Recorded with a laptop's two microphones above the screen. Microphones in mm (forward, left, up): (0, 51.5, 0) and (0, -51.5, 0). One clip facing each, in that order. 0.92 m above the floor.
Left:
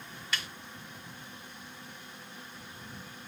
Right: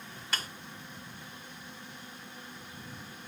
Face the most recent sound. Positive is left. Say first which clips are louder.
# even
turn(degrees=-40)  # may be behind; listen again after turning